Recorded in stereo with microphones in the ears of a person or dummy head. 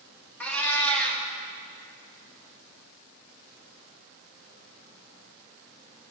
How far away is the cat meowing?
About 1.9 m.